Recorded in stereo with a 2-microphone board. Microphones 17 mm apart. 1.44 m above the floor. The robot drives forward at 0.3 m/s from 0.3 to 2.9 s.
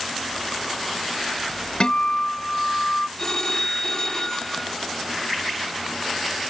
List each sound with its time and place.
1.8 s a guitar: 50° left (ahead or behind); by 3.1 s 40° left (ahead or behind)
3.2 s a phone ringing: 30° left (ahead or behind)